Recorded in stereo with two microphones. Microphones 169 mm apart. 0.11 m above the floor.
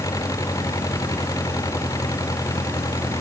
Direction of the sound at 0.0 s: 20° left (ahead or behind).